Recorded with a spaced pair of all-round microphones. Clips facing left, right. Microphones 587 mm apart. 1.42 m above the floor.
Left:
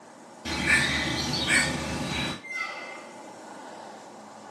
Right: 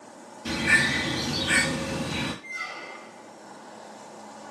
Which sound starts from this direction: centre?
A bird, at 0.5 s.